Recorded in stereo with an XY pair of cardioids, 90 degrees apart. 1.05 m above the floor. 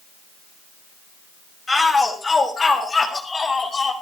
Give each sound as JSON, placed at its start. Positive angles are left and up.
{"t": 1.7, "sound": "a shout", "azimuth_deg": 15, "distance_m": 5.5}